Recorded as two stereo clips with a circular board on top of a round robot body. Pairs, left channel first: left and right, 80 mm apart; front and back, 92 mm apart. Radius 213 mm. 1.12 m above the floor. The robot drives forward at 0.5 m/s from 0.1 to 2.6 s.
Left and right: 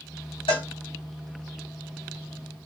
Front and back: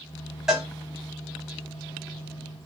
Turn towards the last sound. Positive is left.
turn(degrees=125)